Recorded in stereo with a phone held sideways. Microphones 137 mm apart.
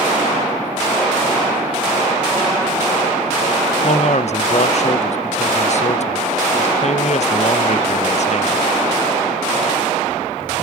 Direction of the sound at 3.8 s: 55° left (ahead or behind).